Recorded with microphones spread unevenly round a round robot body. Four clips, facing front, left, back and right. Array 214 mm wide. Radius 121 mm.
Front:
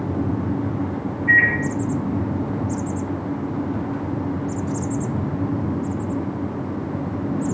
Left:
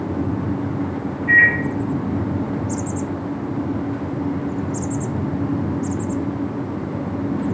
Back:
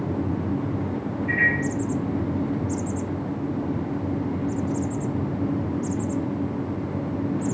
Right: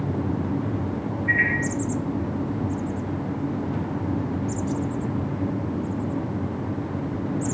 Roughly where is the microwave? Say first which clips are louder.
Left 9 dB, front 6 dB; ahead.